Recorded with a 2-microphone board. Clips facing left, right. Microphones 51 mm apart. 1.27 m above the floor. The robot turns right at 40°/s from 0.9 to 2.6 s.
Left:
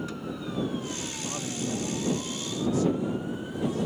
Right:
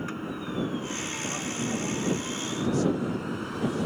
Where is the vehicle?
145° right; by 3.9 s 75° right.